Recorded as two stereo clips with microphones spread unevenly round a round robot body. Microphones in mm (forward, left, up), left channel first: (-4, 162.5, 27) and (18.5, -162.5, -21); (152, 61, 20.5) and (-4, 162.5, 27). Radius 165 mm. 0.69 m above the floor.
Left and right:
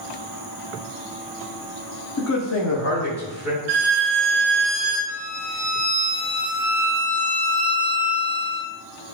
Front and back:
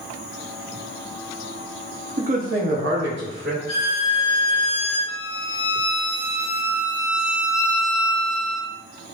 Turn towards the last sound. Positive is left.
turn(degrees=50)